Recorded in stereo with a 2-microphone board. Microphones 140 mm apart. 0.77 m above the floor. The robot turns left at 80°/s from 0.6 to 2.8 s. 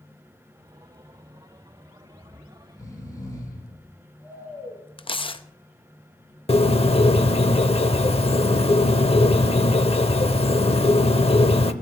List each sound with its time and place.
2.2 s snoring: 75° left, 2.5 m; by 4.8 s 25° left, 2.5 m
5.0 s tearing paper: 35° left (ahead or behind), 0.5 m
6.5 s a bird: 40° left (ahead or behind), 0.6 m